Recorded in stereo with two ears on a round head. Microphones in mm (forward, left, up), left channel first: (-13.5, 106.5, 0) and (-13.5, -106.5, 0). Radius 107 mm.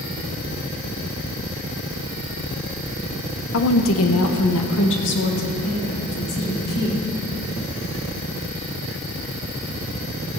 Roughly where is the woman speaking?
Left.